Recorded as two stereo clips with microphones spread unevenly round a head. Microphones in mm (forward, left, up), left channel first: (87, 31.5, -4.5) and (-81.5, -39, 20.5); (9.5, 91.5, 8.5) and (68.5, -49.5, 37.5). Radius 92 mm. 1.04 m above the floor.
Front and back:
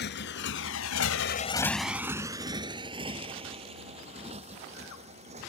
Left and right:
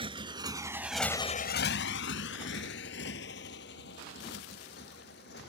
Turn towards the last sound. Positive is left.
turn(degrees=145)